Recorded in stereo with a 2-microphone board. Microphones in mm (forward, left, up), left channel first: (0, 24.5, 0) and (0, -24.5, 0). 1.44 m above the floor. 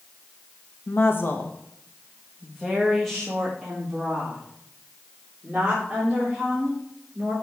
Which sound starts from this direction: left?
A woman speaking, at 0.9 s.